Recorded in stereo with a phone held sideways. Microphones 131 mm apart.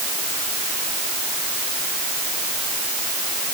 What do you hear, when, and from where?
Only background noise.